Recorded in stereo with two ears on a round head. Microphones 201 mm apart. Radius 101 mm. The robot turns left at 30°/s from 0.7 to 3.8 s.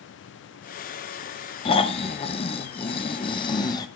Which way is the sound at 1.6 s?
25° left (ahead or behind).